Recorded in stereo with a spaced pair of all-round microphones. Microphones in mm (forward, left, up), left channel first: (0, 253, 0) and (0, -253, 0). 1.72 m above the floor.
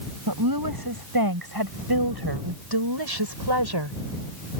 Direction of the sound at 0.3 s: 40° right (ahead or behind).